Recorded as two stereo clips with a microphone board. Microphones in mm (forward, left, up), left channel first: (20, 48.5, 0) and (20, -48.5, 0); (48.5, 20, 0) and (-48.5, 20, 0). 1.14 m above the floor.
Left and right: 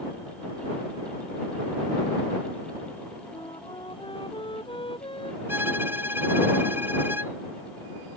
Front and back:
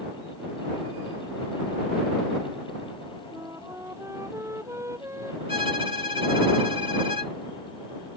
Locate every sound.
3.3 s a flute: 120° left
5.5 s a violin: 160° right